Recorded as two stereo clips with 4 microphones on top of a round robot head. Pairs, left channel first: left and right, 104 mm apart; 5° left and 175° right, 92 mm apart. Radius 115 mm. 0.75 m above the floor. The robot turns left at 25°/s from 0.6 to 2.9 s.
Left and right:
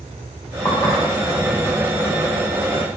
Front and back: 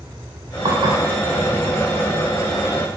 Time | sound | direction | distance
0.7 | dishes clattering | 150° left | 1.9 m